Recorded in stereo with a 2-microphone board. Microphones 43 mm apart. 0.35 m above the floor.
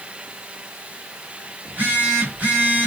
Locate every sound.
1.6 s a phone buzzing: 35° right (ahead or behind), 2.0 m